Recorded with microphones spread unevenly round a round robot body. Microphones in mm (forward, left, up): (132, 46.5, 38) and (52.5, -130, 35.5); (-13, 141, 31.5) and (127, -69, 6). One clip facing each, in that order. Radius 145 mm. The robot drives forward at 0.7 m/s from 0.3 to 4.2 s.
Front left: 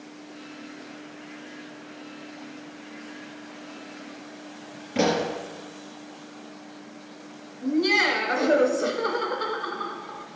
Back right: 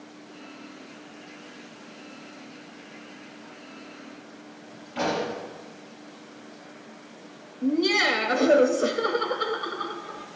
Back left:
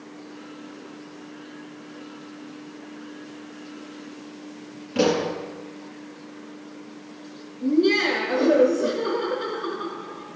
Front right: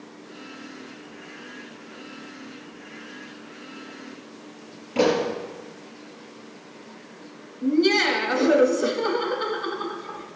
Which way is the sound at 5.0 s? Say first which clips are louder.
Front left 4 dB, even; 55° left.